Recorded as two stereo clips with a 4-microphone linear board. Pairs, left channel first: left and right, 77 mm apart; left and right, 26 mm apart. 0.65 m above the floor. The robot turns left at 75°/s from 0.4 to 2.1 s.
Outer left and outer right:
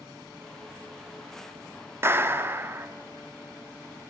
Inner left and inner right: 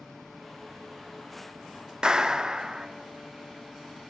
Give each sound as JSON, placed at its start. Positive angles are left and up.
{"t": 2.0, "sound": "a clap", "side_deg": -35, "distance_m": 1.1}